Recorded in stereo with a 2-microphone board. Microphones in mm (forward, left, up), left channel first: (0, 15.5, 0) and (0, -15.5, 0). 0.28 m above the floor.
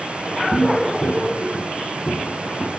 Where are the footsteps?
55° left (ahead or behind), 1.4 m; by 2.7 s 85° left, 4.5 m.